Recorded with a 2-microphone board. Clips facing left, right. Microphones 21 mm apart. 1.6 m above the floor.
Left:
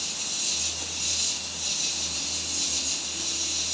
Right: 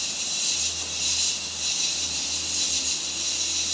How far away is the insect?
About 5.5 m.